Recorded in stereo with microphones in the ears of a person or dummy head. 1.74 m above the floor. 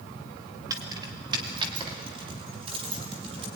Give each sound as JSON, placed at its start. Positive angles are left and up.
{"t": 0.7, "sound": "keys jangling", "side_deg": -20, "distance_m": 2.5}